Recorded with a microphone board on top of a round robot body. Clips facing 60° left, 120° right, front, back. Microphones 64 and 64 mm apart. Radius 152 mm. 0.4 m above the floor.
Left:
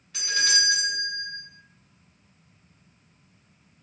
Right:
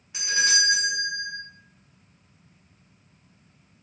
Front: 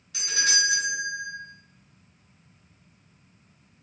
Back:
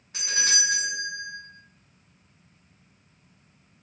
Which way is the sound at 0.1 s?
Straight behind.